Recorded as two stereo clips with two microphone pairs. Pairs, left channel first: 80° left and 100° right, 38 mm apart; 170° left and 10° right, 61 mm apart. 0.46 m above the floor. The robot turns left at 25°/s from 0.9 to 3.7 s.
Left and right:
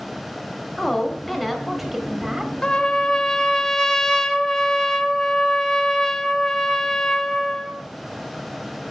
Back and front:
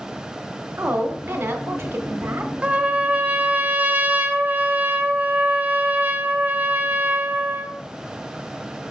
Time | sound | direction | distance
0.8 | a woman speaking | 5° left | 0.8 m
2.6 | a trumpet | 40° left | 0.6 m